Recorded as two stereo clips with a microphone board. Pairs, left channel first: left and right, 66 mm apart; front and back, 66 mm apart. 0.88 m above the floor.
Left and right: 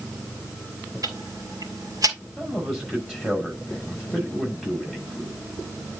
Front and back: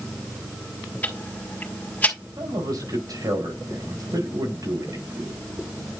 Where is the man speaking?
Straight behind, 7 m.